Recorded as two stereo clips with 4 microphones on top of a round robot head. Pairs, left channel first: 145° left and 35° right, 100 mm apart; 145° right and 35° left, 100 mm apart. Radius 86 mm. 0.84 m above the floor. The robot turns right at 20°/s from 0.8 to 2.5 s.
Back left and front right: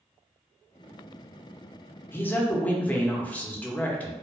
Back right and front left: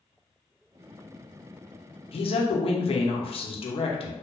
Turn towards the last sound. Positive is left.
turn(degrees=-140)